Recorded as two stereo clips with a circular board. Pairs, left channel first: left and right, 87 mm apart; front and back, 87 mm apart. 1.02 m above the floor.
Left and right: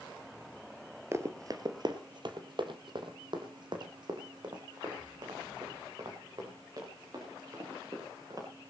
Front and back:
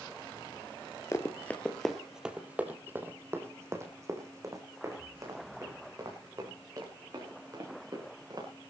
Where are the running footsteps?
45° right, 1.4 m; by 8.5 s 135° right, 8.5 m.